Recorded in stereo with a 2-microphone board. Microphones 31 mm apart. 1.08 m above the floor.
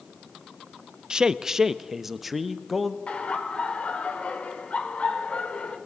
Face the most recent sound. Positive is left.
turn(degrees=45)  # may be behind; listen again after turning